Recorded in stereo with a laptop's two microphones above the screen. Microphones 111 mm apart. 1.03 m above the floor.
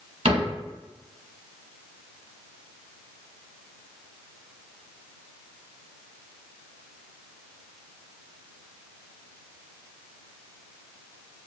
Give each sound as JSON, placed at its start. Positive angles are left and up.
{"t": 0.2, "sound": "a cupboard door", "side_deg": -55, "distance_m": 1.4}